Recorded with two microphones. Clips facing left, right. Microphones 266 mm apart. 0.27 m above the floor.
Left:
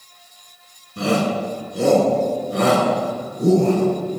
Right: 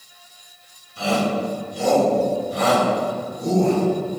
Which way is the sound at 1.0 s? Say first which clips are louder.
Left 2 dB; 60° left (ahead or behind).